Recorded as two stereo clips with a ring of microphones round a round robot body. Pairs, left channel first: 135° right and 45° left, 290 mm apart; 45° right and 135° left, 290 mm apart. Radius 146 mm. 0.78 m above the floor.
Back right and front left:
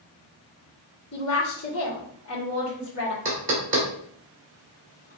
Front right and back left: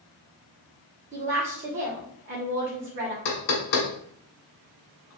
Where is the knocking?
20° right, 1.3 m.